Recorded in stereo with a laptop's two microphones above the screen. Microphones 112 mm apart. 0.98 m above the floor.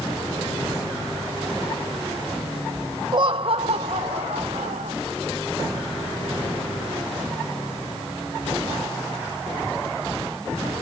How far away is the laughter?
About 0.7 m.